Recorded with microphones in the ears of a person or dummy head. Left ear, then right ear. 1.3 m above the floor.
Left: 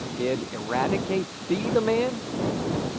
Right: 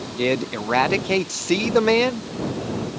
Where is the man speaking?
75° right (ahead or behind).